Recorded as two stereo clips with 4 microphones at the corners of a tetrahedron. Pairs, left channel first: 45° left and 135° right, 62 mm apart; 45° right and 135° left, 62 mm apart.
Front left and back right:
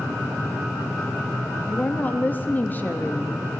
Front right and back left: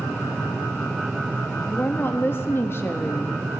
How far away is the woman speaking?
About 0.6 m.